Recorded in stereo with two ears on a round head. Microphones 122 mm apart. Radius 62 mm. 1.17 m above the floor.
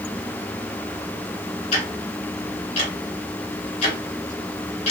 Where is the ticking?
45° left (ahead or behind), 2.5 m.